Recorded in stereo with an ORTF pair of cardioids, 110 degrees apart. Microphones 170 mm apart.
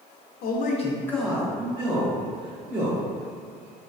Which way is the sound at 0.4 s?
65° left.